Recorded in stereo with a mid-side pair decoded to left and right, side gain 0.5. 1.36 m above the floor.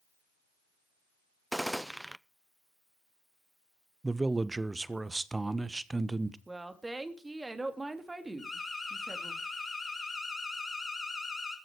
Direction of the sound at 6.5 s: 15° right.